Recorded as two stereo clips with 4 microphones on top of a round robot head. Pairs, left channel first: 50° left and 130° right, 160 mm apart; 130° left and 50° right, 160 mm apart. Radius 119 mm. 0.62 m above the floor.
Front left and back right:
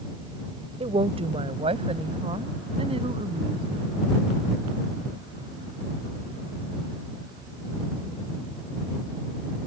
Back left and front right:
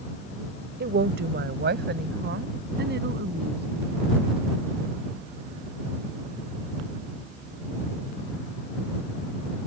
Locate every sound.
0.8 s a woman speaking: 70° right